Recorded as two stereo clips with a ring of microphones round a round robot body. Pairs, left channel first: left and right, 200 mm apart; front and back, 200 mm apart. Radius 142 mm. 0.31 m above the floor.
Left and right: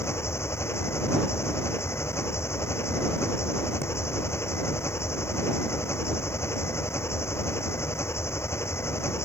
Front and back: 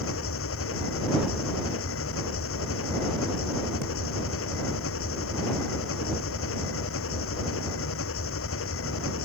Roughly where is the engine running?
Ahead.